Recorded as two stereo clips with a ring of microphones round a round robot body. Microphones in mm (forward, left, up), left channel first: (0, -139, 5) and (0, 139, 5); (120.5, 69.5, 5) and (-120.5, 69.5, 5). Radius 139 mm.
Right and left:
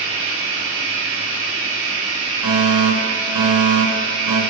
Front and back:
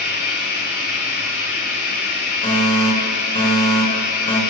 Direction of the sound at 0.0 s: 45° left.